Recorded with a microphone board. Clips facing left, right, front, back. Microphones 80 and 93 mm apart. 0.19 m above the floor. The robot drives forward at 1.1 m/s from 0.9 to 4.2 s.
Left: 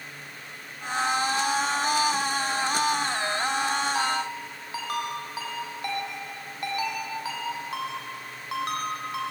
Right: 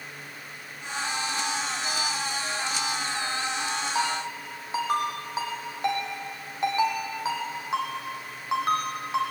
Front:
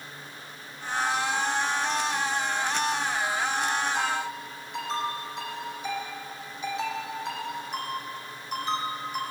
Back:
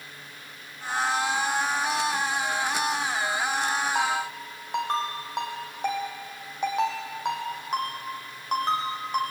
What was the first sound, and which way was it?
A ringtone, 155° right.